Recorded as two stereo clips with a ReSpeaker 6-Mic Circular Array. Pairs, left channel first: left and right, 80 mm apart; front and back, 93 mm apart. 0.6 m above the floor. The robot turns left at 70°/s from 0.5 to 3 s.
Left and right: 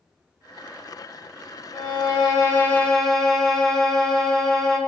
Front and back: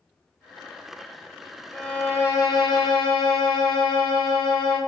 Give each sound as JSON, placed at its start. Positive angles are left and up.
{"t": 1.7, "sound": "a violin", "azimuth_deg": 90, "distance_m": 1.5}